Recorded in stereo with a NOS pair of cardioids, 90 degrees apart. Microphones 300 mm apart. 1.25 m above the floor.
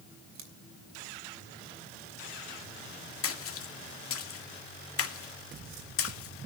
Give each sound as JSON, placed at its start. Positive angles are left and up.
{"t": 0.3, "sound": "scissors", "azimuth_deg": -70, "distance_m": 4.0}
{"t": 3.2, "sound": "a splash", "azimuth_deg": 50, "distance_m": 2.0}